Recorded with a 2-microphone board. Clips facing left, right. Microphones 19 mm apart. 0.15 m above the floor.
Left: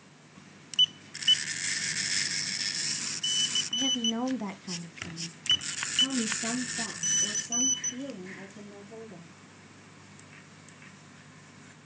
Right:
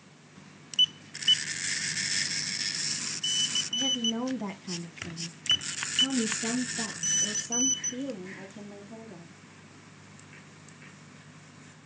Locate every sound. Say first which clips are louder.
3.7 s a woman speaking: even; 15° left (ahead or behind), 1.0 m; by 9.3 s 15° right (ahead or behind), 3.5 m